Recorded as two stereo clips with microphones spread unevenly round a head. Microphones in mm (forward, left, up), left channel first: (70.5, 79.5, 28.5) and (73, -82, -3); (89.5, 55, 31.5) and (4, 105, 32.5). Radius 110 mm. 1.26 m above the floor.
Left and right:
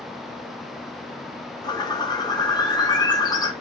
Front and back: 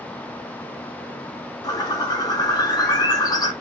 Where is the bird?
20° left, 0.8 m.